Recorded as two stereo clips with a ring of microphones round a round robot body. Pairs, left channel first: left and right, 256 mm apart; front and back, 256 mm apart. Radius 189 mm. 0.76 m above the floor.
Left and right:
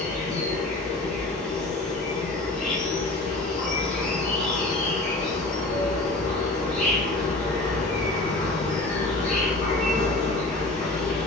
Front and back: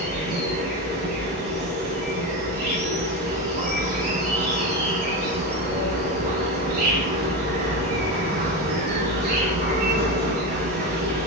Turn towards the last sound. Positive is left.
turn(degrees=150)